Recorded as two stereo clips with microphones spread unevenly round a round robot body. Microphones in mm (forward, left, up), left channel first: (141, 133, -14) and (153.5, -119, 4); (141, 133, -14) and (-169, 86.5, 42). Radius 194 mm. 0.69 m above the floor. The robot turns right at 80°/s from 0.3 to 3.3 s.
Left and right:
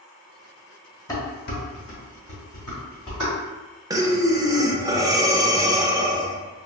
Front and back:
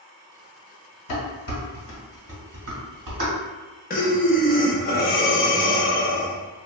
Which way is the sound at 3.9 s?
10° right.